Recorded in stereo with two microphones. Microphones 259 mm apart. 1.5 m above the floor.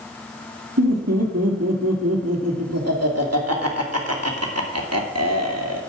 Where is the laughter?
70° right (ahead or behind), 2.5 m.